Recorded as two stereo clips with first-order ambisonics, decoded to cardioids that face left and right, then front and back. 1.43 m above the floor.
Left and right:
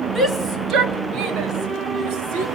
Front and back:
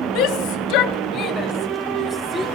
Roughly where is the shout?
Ahead.